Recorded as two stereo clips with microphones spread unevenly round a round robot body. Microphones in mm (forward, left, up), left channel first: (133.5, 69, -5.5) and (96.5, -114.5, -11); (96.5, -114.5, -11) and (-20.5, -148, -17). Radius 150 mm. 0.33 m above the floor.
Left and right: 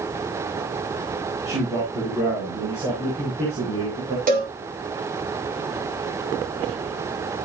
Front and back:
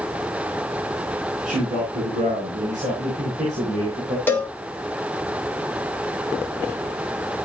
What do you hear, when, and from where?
1.4 s a man speaking: 175° left, 4 m; by 4.2 s 150° right, 5 m
4.3 s a cowbell: 60° right, 2.5 m